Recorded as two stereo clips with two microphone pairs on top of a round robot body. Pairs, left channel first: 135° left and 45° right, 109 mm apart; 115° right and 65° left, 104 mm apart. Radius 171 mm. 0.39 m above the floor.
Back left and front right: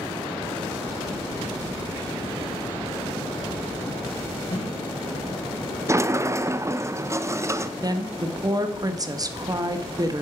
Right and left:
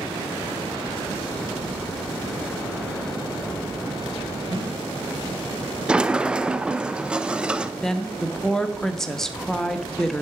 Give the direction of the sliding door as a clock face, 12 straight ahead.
12 o'clock.